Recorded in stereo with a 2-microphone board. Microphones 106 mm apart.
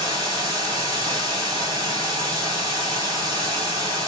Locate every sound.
0.0 s running water: 40° right (ahead or behind), 2 m